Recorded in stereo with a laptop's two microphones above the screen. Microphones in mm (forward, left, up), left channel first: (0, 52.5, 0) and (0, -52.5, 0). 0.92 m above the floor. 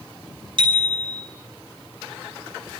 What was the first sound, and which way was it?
A bicycle bell, 55° right (ahead or behind).